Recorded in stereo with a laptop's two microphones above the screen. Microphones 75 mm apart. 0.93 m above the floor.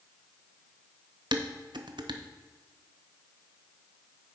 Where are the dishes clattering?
85° right, 0.5 m.